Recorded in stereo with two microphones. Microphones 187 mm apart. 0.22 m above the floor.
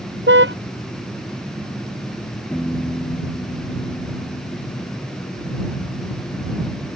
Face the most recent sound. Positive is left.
turn(degrees=5)  # may be behind; listen again after turning